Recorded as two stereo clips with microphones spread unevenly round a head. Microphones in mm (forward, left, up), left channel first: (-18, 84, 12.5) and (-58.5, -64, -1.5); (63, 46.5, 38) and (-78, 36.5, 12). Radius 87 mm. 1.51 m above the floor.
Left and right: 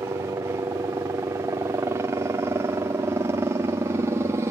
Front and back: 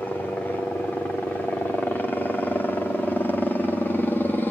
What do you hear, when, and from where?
0.0 s a helicopter: 80° right